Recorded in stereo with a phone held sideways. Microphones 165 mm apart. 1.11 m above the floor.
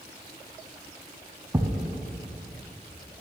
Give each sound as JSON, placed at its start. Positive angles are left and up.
{"t": 1.5, "sound": "a thud", "side_deg": -20, "distance_m": 1.1}